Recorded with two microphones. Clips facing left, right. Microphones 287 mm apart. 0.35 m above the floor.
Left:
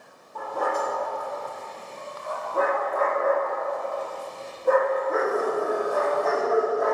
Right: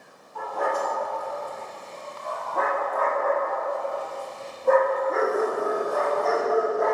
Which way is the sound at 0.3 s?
50° left (ahead or behind).